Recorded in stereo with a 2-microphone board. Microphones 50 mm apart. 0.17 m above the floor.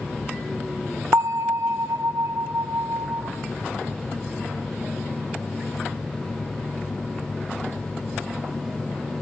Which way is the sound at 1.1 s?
60° right (ahead or behind).